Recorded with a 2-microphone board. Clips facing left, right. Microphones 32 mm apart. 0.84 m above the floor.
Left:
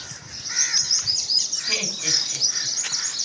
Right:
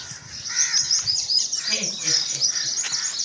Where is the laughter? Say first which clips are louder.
Left 2 dB; 20° left (ahead or behind), 6 m.